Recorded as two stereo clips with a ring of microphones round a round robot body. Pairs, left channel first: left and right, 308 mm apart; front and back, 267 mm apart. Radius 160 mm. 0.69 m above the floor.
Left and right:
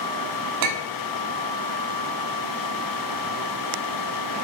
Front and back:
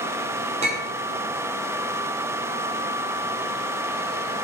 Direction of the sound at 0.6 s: 110° right.